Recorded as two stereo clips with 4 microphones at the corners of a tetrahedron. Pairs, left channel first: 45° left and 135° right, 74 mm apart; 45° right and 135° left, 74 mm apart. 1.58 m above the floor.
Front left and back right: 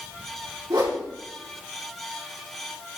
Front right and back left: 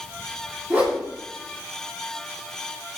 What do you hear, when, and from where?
0.7 s a whoosh: 155° right, 3 m